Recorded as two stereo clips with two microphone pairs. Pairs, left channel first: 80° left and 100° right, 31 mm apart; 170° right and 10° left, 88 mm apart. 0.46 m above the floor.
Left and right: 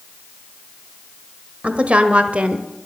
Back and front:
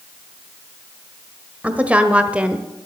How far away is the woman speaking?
About 1.5 m.